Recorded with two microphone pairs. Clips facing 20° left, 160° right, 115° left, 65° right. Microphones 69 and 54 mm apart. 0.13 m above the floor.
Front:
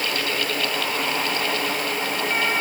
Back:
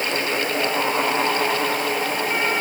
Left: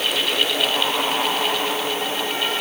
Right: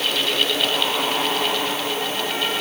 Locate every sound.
Only background noise.